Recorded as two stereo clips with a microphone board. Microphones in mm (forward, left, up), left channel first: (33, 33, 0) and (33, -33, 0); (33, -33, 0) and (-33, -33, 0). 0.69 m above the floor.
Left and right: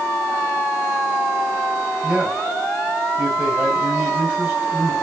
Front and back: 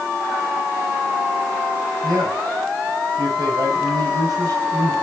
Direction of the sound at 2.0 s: 155° right.